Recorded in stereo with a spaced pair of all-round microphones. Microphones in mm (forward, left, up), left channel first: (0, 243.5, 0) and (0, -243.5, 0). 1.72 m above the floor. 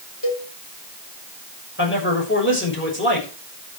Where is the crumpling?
I don't hear crumpling.